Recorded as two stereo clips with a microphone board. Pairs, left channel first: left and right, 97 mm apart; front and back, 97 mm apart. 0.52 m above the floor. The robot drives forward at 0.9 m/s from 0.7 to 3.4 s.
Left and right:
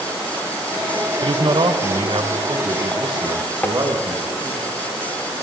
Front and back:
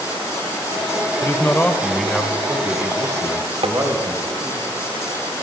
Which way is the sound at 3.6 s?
160° left.